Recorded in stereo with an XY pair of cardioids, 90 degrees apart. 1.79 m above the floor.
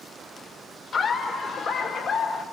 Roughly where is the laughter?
Ahead left.